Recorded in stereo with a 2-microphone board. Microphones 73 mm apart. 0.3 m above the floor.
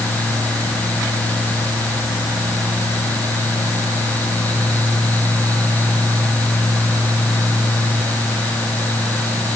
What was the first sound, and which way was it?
Only background noise.